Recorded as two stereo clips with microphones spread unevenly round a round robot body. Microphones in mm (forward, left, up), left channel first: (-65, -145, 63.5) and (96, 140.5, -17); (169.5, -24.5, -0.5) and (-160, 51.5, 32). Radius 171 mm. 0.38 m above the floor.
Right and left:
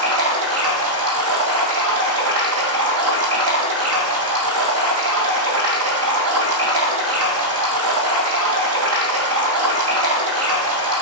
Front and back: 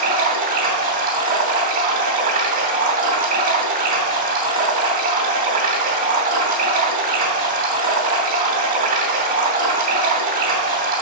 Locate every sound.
0.0 s running water: 100° left, 3 m